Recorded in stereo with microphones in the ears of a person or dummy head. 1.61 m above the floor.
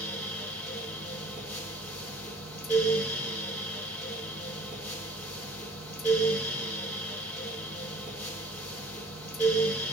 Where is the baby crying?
No baby crying in this recording.